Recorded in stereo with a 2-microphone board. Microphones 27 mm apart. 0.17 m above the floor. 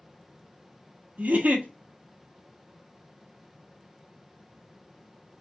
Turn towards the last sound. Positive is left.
turn(degrees=-80)